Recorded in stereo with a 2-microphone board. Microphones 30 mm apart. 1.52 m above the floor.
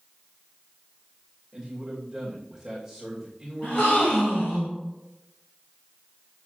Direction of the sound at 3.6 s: 65° left (ahead or behind).